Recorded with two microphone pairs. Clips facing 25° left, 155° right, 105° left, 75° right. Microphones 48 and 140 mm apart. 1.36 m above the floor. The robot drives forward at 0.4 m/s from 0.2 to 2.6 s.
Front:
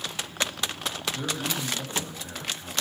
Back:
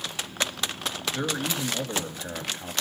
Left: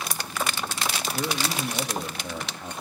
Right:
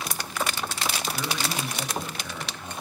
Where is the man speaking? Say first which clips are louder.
Back 2 dB, left 2 dB; 160° left, 2.5 m; by 2.7 s 165° left, 3 m.